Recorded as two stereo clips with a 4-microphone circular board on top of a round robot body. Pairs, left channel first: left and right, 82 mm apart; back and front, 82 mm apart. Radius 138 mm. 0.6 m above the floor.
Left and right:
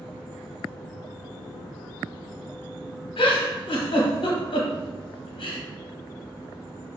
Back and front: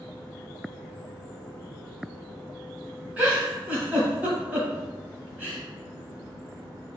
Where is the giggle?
75° left, 0.8 m.